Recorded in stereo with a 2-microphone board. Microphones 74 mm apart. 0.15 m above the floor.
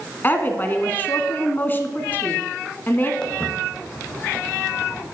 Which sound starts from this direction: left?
A woman speaking, at 0.2 s.